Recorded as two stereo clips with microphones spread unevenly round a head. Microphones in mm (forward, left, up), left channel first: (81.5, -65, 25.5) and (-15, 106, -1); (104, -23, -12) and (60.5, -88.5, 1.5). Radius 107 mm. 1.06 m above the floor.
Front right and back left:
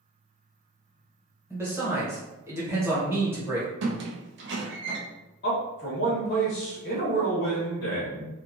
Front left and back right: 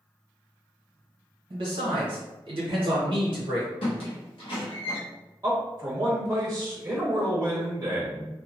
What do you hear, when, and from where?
1.5 s a man speaking: 165° right, 1.0 m
3.8 s a squeak: 85° left, 0.6 m
5.4 s a man speaking: 70° right, 0.8 m